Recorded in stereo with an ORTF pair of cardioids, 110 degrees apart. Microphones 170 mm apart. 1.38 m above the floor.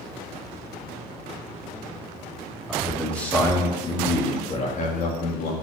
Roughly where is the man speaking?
Ahead.